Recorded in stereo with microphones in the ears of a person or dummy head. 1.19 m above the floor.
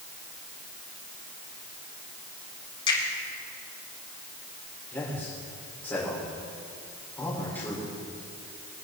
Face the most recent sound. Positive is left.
turn(degrees=15)  # may be behind; listen again after turning